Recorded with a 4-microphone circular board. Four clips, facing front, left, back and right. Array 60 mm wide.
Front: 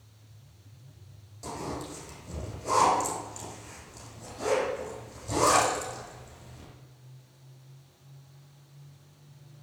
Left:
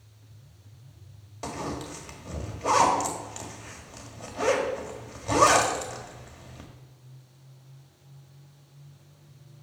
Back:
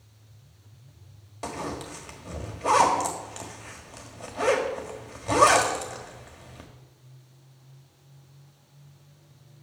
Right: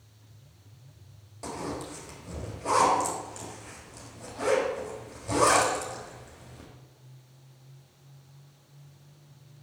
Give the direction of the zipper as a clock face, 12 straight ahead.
7 o'clock.